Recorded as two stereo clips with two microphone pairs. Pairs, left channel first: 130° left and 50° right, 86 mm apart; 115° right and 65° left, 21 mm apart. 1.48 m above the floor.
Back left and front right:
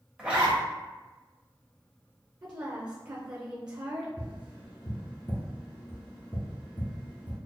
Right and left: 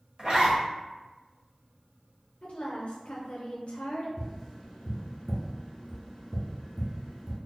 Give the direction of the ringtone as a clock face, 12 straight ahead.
I don't hear a ringtone.